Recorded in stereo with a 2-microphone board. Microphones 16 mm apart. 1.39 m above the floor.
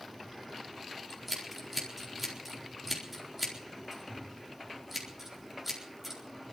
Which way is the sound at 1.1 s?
15° right (ahead or behind).